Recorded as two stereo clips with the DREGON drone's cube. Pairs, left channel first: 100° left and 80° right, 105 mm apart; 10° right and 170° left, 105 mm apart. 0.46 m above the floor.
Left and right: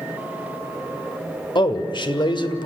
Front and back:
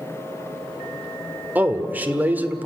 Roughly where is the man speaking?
Left.